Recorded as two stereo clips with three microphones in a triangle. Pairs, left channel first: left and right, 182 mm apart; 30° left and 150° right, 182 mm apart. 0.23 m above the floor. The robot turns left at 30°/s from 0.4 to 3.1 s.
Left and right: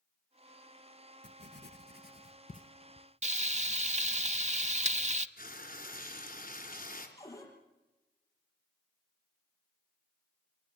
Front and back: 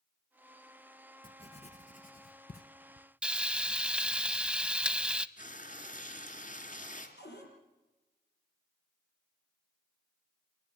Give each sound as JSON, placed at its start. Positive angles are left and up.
{"t": 1.2, "sound": "writing", "azimuth_deg": 90, "distance_m": 1.2}
{"t": 3.2, "sound": "frying", "azimuth_deg": -70, "distance_m": 0.6}
{"t": 5.4, "sound": "frying", "azimuth_deg": 65, "distance_m": 3.0}
{"t": 7.2, "sound": "a cupboard door", "azimuth_deg": 15, "distance_m": 6.0}